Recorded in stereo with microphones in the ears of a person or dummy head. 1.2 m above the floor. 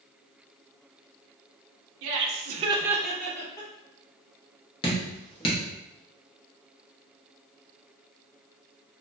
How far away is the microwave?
I don't hear a microwave.